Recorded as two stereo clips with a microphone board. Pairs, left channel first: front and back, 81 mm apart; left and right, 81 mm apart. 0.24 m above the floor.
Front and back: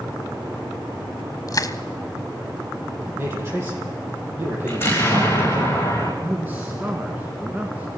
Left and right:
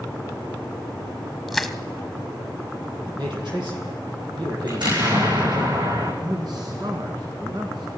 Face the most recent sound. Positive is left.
turn(degrees=-115)